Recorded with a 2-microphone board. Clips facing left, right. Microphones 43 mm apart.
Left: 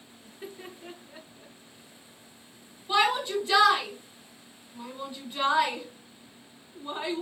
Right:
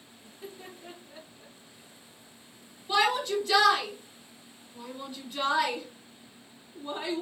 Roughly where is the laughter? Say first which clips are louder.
Left 2 dB; left.